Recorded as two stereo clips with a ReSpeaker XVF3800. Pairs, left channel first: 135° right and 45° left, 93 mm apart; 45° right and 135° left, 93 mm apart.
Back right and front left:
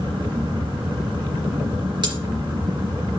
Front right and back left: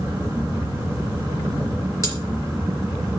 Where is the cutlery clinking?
10° left, 3 m.